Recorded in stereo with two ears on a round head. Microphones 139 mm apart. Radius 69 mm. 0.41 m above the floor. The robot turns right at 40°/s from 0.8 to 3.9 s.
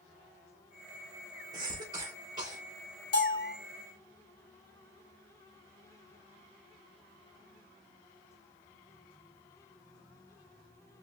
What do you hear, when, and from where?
1.5 s a cough: 25° right (ahead or behind), 1.3 m
3.1 s a bell: 35° left (ahead or behind), 1.7 m; by 3.5 s 20° left (ahead or behind), 1.7 m